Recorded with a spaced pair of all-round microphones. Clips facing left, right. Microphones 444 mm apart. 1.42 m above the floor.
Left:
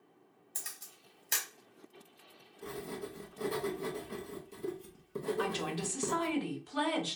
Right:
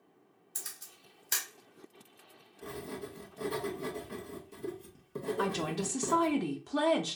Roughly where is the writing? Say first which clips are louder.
Even; centre.